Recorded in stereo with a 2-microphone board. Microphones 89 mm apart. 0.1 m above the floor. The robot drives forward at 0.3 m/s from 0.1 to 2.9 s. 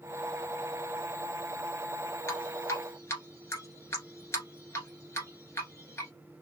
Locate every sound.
2.3 s dripping: 30° left (ahead or behind), 1.7 m